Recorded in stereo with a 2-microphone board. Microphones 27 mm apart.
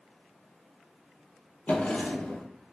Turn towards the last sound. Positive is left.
turn(degrees=55)  # may be behind; listen again after turning